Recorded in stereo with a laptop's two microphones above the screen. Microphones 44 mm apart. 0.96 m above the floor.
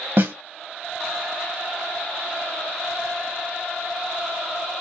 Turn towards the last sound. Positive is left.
turn(degrees=-55)  # may be behind; listen again after turning